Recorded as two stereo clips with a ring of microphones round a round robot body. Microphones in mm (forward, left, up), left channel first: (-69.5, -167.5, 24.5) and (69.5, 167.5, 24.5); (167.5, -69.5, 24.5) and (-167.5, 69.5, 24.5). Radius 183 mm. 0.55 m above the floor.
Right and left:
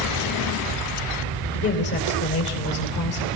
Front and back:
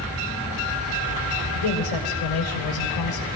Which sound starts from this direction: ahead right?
A woman speaking, at 1.5 s.